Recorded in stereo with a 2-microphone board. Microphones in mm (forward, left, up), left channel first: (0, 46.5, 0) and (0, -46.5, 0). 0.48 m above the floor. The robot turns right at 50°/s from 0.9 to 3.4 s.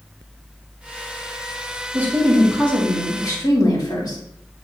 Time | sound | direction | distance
1.9 | a woman speaking | 25° right | 3 m